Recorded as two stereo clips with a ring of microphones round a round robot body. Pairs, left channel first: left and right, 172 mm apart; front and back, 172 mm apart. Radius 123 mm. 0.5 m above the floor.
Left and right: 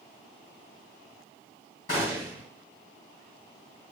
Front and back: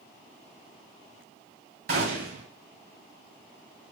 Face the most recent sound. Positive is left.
turn(degrees=165)